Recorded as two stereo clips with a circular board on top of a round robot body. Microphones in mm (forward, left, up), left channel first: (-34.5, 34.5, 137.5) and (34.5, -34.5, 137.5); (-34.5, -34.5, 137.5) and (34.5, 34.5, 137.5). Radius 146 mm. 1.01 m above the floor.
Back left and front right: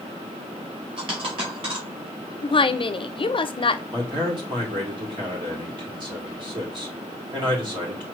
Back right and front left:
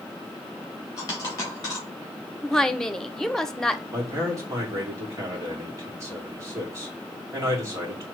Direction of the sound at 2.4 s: 140° left.